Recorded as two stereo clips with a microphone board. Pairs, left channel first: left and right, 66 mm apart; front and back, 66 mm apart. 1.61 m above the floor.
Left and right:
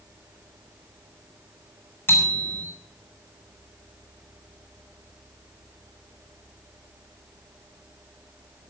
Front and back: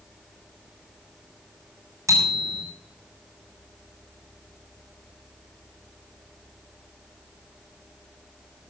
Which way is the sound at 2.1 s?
145° left.